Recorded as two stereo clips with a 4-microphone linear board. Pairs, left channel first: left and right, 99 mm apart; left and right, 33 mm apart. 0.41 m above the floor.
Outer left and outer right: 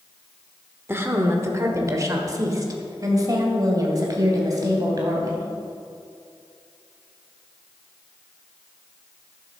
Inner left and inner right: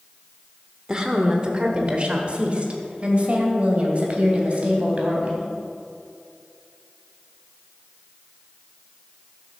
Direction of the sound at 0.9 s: 20° right (ahead or behind).